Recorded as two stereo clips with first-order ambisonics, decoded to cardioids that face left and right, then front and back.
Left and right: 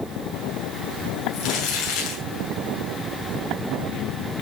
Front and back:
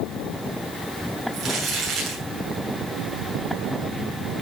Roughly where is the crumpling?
Behind left.